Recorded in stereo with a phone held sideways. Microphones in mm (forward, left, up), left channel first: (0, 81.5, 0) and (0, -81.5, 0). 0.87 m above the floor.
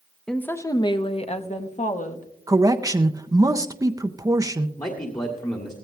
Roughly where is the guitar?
No guitar in this recording.